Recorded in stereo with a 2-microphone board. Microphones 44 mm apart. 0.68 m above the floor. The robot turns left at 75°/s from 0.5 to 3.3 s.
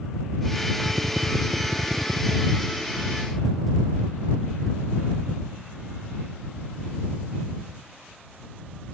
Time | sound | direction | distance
0.8 | a drill | 40° right | ?